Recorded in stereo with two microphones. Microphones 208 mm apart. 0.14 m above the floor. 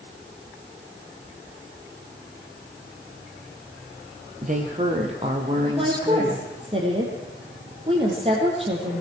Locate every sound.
4.4 s a woman speaking: 40° right (ahead or behind), 4.5 m; by 6.5 s 10° right (ahead or behind), 4.5 m
5.8 s a woman speaking: 25° right (ahead or behind), 5.5 m